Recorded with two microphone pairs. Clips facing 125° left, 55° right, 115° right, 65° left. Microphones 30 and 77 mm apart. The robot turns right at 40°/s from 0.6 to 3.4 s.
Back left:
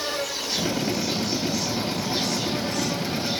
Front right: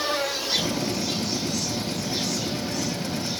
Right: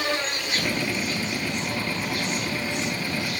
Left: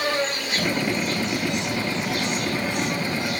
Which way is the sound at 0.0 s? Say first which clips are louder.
Front right 2 dB, left 3 dB; 10° left.